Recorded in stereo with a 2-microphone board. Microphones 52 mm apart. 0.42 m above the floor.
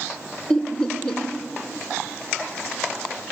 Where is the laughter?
15° left (ahead or behind), 1.3 m.